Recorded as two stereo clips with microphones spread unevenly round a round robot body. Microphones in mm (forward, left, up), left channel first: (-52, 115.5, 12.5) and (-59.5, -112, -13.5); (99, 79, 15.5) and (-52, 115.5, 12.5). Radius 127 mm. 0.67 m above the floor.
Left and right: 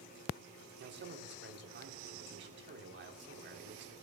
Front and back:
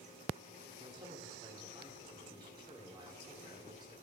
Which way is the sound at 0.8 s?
125° right.